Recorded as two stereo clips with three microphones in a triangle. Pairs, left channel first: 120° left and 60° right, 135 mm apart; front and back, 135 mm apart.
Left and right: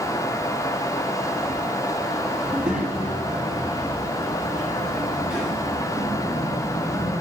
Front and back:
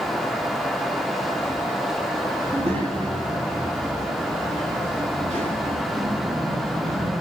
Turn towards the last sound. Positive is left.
turn(degrees=-150)